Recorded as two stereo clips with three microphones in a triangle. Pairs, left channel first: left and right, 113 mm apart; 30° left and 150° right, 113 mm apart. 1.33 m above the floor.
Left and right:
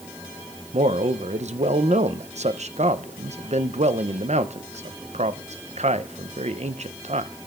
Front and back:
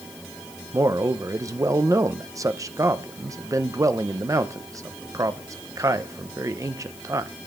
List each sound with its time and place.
0.7 s a man speaking: 85° right, 0.7 m